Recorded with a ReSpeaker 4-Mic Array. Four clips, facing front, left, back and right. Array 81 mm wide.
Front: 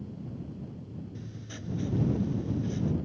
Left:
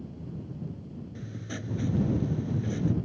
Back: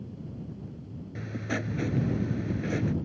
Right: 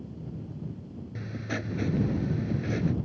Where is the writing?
150° right.